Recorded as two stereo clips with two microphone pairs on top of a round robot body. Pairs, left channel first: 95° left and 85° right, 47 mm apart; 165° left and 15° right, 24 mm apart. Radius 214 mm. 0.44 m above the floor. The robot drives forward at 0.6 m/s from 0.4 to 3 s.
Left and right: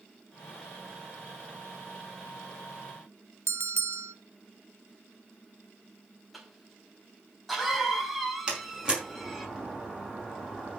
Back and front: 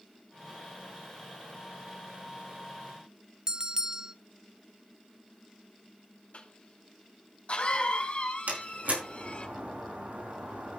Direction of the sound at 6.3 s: 175° right.